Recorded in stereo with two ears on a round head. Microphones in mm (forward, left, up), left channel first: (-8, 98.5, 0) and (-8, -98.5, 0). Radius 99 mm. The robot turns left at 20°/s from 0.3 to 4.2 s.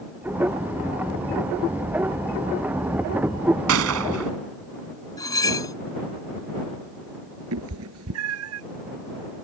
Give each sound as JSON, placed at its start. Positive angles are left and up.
{"t": 3.7, "sound": "a gunshot", "side_deg": -70}
{"t": 5.2, "sound": "cutlery clinking", "side_deg": 15}
{"t": 7.5, "sound": "a cat meowing", "side_deg": -70}